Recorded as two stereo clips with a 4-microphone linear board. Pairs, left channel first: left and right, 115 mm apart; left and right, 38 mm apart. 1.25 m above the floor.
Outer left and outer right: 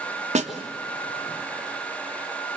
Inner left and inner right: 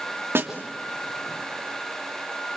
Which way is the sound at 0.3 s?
85° right.